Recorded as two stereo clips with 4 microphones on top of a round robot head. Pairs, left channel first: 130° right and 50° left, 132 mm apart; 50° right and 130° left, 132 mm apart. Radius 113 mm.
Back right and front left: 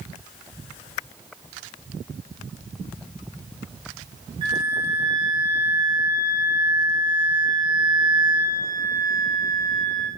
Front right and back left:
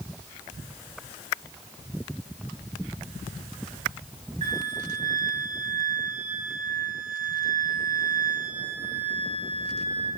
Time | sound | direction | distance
4.4 | a flute | 100° left | 2.5 m